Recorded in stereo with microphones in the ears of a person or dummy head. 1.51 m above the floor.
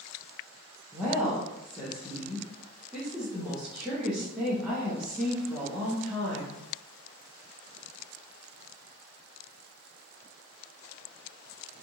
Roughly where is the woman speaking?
Centre.